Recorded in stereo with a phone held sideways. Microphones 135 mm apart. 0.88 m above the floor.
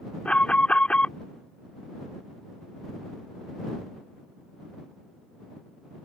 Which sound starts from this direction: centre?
An alarm, at 0.2 s.